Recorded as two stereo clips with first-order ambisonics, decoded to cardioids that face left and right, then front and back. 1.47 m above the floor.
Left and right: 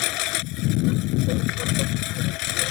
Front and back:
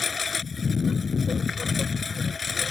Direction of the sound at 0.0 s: 70° left.